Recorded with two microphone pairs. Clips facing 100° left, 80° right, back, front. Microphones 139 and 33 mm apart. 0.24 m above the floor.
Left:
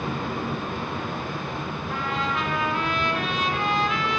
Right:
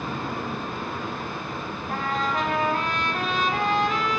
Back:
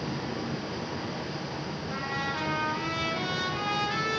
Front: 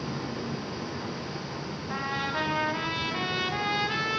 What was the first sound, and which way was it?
Running water, 95° left.